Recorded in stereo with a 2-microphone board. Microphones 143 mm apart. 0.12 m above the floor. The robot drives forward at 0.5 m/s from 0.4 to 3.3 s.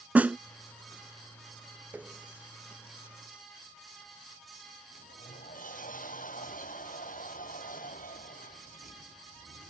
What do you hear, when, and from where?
0.1 s a snare drum: 10° right (ahead or behind)
1.9 s a running tap: 10° right (ahead or behind); by 3.5 s 5° right (ahead or behind)
4.9 s a sliding door: 70° left (ahead or behind)